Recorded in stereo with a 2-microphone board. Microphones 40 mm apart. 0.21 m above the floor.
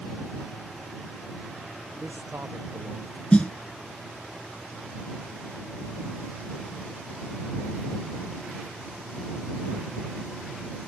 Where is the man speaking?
60° right (ahead or behind).